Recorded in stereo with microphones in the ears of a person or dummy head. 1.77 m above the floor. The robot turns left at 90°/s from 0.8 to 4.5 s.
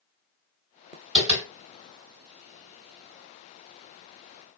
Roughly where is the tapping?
Right.